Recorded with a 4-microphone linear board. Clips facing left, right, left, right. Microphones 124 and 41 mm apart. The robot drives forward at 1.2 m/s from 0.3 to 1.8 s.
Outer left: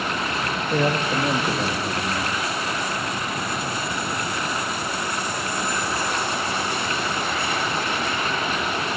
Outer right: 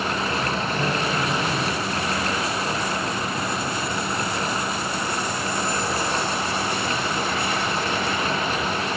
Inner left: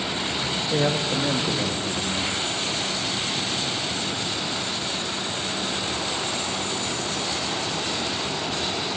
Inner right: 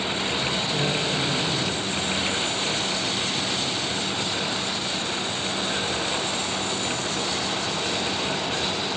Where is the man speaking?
70° left (ahead or behind), 2 m; by 2.3 s 45° left (ahead or behind), 3 m.